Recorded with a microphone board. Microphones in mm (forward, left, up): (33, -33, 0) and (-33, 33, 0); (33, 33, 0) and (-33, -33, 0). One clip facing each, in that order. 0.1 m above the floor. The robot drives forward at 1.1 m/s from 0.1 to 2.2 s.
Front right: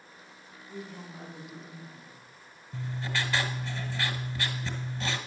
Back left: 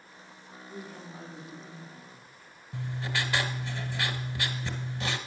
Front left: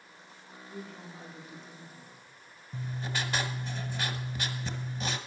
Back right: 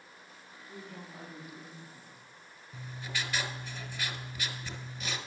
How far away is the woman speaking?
About 5.5 m.